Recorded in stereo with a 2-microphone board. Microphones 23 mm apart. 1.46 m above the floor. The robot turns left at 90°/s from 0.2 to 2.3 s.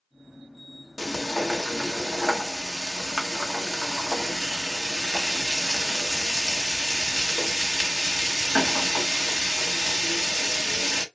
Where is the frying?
10° left (ahead or behind), 1.2 m; by 11.1 s 20° left (ahead or behind), 1.2 m.